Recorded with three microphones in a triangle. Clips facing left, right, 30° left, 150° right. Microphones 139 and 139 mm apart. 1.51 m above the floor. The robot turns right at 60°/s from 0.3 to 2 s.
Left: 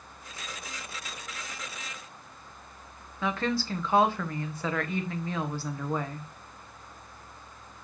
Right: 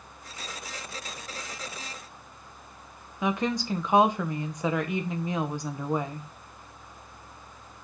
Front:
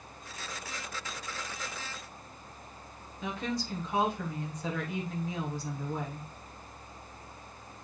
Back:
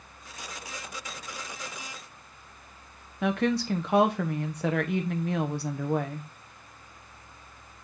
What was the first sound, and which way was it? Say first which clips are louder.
A woman speaking: right 2 dB, back 9 dB; 165° right.